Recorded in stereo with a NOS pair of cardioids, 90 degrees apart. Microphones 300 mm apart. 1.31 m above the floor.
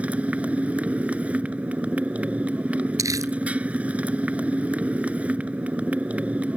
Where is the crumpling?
10° right.